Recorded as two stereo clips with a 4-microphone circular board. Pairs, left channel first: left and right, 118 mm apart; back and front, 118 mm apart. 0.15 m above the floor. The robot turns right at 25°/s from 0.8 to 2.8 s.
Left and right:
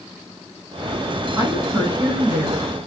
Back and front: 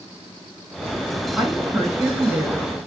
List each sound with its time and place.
1.4 s a woman speaking: 85° right, 1.5 m; by 2.7 s 50° right, 1.5 m